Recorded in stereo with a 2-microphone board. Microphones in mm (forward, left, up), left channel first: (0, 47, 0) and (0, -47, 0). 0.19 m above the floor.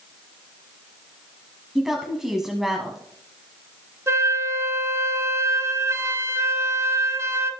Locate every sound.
1.8 s a woman speaking: 5° right (ahead or behind), 1.2 m
4.1 s a flute: 30° right (ahead or behind), 0.8 m